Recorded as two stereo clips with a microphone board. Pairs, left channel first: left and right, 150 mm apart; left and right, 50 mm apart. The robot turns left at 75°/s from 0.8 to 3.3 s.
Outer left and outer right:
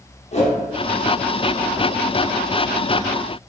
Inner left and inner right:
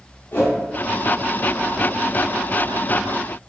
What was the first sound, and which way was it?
A whoosh, 45° left (ahead or behind).